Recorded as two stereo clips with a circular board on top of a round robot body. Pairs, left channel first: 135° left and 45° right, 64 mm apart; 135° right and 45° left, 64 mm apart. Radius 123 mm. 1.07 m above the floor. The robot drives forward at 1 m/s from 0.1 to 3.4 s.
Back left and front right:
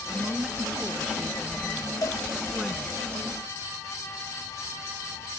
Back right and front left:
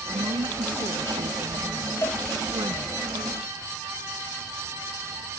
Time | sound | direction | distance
0.1 | a woman speaking | 30° left | ?
2.0 | a cowbell | 175° left | ?